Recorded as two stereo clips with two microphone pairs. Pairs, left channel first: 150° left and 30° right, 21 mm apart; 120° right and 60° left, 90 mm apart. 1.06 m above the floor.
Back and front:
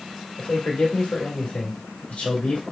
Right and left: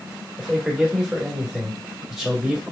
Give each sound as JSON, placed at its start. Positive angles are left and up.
{"t": 0.4, "sound": "a man speaking", "azimuth_deg": 145, "distance_m": 1.4}